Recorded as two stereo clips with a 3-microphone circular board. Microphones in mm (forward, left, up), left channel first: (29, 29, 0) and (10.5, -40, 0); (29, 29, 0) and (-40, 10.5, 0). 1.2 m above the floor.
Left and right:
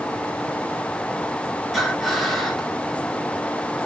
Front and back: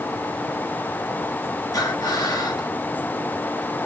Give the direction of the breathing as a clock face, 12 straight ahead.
12 o'clock.